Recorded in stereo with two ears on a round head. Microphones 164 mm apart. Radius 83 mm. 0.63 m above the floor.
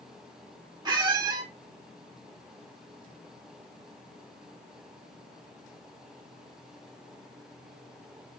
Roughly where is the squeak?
Right.